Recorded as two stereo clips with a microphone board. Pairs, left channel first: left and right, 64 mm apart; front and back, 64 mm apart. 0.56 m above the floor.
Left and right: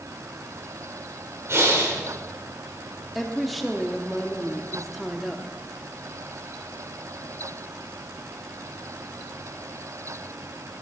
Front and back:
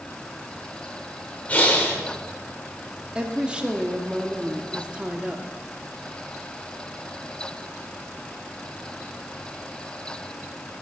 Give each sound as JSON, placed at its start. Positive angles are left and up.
{"t": 1.5, "sound": "breathing", "azimuth_deg": -60, "distance_m": 2.5}
{"t": 3.1, "sound": "a woman speaking", "azimuth_deg": 180, "distance_m": 0.8}